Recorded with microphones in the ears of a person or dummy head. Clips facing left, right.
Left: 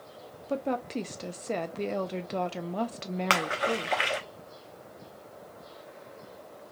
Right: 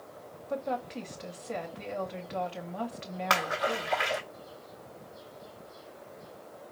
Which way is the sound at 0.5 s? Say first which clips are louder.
Left 3 dB; 55° left (ahead or behind).